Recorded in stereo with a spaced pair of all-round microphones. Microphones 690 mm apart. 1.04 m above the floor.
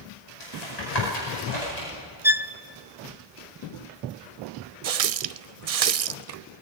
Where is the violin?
5° right (ahead or behind), 0.7 m.